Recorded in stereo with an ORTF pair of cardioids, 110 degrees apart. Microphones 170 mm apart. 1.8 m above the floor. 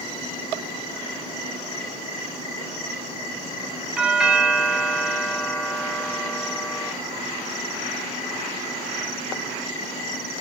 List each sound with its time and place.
4.0 s a doorbell: 5° right, 0.9 m